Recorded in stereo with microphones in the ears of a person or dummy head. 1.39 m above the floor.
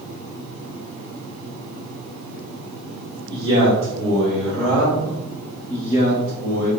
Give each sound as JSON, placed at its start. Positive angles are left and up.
{"t": 3.3, "sound": "a man speaking", "side_deg": -25, "distance_m": 2.5}